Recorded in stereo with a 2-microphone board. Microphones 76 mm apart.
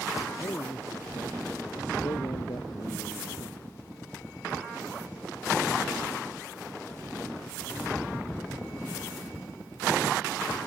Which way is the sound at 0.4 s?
60° left (ahead or behind).